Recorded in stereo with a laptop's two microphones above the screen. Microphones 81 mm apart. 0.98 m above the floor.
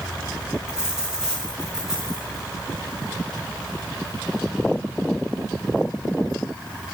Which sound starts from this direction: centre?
A dropped coin, at 0.7 s.